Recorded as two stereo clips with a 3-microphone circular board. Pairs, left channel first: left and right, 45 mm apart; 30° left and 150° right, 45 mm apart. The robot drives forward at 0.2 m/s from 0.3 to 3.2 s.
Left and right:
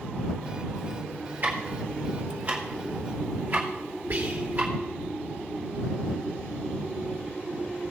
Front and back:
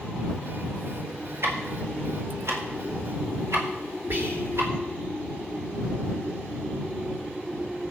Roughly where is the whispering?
Behind right.